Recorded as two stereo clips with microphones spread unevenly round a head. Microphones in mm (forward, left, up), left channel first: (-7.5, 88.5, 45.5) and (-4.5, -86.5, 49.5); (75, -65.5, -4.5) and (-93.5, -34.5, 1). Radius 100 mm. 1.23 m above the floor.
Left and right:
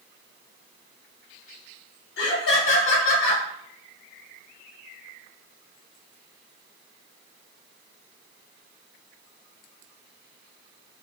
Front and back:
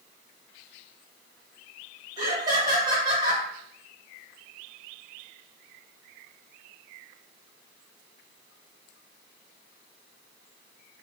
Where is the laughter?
95° left, 1.4 m.